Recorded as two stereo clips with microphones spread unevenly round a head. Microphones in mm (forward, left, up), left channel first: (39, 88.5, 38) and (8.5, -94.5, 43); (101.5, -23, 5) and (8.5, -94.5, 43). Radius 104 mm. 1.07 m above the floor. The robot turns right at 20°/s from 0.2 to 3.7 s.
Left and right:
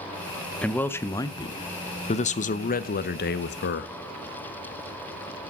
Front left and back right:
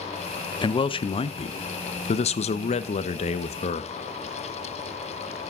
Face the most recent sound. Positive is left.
turn(degrees=60)